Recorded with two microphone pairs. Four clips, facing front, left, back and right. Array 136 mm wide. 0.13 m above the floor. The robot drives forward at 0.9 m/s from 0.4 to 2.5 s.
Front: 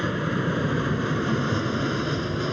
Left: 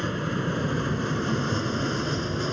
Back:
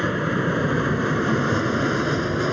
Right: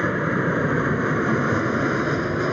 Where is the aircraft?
125° right; by 2.5 s 130° right.